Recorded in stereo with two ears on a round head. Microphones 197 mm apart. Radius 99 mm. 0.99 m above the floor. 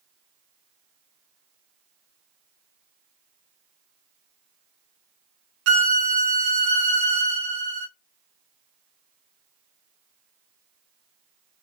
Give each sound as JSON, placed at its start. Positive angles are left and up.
{"t": 5.7, "sound": "a violin", "side_deg": -60, "distance_m": 0.7}